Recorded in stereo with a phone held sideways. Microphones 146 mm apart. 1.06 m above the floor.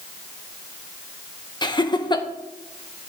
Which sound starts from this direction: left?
Laughter, at 1.6 s.